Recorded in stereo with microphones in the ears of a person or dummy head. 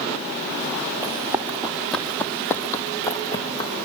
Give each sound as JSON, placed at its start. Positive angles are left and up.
{"t": 1.0, "sound": "running footsteps", "side_deg": -15, "distance_m": 2.5}